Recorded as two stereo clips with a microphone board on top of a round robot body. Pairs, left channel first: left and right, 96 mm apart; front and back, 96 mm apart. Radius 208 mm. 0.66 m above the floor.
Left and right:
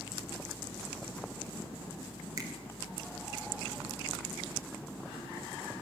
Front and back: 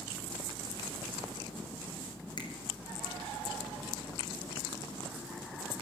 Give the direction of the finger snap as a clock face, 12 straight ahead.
1 o'clock.